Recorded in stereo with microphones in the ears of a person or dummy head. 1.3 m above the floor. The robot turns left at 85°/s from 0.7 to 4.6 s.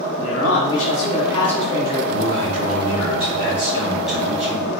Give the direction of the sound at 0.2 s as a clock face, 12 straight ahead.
9 o'clock.